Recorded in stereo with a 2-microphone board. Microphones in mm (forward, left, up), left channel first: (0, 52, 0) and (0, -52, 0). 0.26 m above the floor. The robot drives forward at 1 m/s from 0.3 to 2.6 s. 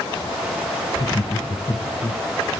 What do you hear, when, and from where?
0.9 s laughter: 55° left (ahead or behind), 2 m; by 2.2 s 40° left (ahead or behind), 3 m